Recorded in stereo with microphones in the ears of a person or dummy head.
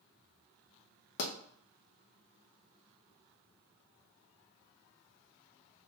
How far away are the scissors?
I don't hear scissors.